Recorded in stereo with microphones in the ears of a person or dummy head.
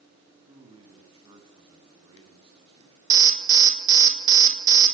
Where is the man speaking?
30° right (ahead or behind), 8 m.